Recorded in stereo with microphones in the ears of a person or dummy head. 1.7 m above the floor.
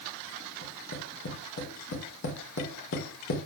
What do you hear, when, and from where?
0.6 s tapping: 65° left (ahead or behind), 5.5 m